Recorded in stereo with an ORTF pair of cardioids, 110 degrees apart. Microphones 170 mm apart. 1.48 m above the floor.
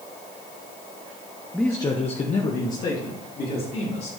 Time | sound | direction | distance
1.5 | a man speaking | straight ahead | 0.9 m